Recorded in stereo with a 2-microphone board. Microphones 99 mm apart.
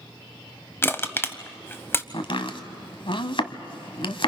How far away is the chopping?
About 1.2 m.